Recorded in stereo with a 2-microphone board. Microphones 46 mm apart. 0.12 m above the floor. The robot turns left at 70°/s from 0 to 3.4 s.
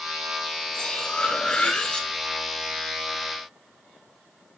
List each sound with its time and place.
0.7 s cutlery clinking: 15° left (ahead or behind), 0.6 m